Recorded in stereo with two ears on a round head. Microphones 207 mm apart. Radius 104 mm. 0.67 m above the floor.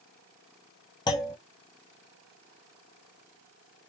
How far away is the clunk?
About 0.7 m.